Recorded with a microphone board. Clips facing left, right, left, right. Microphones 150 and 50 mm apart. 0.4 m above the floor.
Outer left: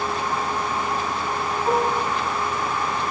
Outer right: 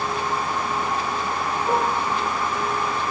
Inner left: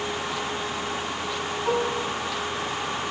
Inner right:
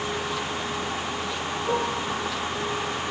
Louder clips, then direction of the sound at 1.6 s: Outer left 2 dB, inner left 1 dB; 55° left (ahead or behind).